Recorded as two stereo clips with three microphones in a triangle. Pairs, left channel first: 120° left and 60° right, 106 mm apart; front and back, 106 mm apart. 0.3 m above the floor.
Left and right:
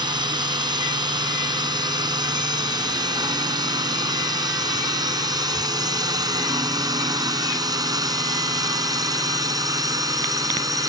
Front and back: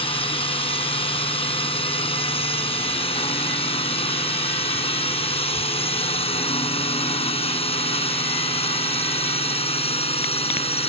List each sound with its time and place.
0.0 s a drone: 20° right; by 10.9 s 5° right